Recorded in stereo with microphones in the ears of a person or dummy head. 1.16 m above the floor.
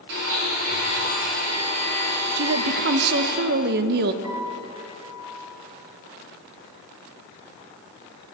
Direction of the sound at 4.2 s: 20° right (ahead or behind).